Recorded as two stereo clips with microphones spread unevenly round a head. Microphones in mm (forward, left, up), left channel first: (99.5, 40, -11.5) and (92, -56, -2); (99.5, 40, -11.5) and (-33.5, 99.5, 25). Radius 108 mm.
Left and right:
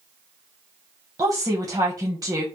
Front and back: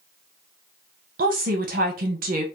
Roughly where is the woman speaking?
Behind.